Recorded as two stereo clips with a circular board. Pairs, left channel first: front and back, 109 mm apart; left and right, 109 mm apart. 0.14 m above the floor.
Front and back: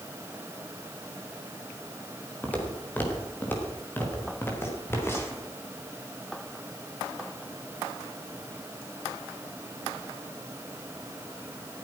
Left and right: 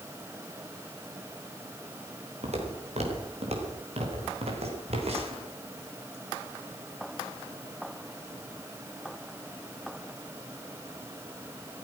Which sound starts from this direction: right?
Footsteps, at 2.4 s.